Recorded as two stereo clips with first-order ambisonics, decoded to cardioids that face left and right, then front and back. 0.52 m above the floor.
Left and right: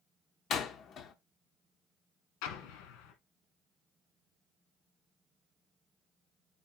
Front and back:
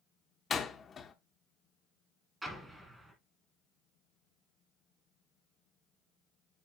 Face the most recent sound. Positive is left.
turn(degrees=95)